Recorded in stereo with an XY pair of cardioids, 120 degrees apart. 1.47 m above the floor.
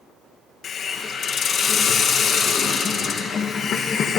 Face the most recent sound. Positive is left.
turn(degrees=50)